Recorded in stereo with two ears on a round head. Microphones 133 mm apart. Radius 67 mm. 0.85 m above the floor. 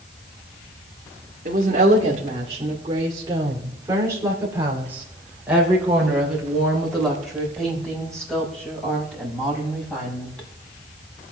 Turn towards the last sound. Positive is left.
turn(degrees=10)  # may be behind; listen again after turning